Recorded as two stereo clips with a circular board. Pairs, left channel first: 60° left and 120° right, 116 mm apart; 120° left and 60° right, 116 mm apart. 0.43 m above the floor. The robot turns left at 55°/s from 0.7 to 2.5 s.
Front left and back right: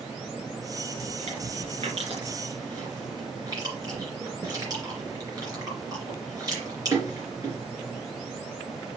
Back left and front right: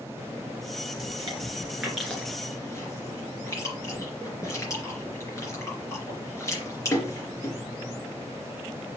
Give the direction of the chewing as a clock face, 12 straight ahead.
3 o'clock.